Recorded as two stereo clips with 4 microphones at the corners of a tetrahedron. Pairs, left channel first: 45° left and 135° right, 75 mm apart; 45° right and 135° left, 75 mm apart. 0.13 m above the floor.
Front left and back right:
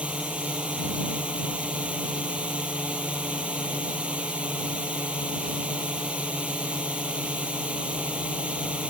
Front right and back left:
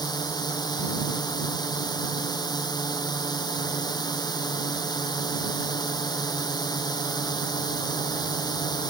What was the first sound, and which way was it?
A drone, 60° right.